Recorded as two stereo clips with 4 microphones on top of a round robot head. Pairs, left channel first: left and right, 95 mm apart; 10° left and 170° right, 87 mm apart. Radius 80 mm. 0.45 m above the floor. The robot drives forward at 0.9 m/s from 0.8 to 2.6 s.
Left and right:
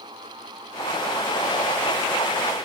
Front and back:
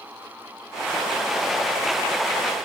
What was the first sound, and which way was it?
Only background noise.